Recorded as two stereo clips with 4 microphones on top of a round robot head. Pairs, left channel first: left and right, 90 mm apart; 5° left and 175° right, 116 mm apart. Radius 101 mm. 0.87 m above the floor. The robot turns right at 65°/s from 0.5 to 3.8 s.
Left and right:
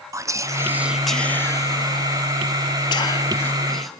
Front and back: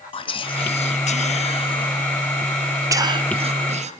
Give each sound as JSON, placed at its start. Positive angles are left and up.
{"t": 0.1, "sound": "whispering", "azimuth_deg": -35, "distance_m": 0.7}